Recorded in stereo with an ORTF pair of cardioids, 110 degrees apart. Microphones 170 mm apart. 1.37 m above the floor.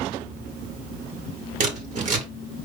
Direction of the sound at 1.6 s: 45° right.